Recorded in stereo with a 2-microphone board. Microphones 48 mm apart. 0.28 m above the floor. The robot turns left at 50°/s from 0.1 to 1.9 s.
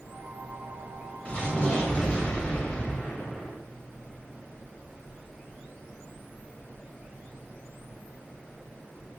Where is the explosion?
30° left (ahead or behind), 0.7 m; by 3.6 s 25° left (ahead or behind), 0.7 m.